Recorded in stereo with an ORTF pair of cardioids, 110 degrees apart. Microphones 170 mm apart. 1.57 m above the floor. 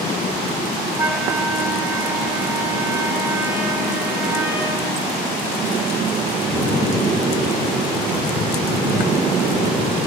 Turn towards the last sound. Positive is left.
turn(degrees=-10)